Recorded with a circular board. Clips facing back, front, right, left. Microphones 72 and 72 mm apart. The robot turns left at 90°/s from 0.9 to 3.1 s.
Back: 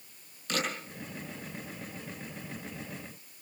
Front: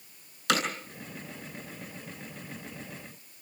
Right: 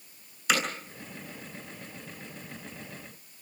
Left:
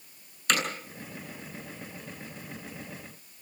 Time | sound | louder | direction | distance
0.5 | hammering | front 6 dB, right 1 dB | 5° right | 9.5 m